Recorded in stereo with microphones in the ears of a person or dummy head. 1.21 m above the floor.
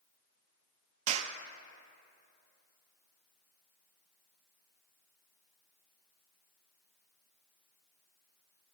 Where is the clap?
45° right (ahead or behind), 0.7 m.